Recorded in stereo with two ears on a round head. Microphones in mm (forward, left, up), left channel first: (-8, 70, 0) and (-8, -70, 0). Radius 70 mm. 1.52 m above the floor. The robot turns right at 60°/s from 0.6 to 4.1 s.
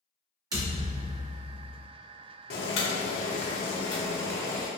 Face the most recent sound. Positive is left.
turn(degrees=165)